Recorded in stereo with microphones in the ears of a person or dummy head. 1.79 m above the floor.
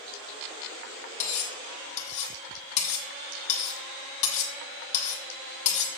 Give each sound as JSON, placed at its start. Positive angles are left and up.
{"t": 1.2, "sound": "cutlery clinking", "side_deg": 35, "distance_m": 1.4}